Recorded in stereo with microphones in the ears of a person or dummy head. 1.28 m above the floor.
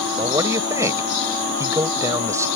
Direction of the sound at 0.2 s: 20° right (ahead or behind).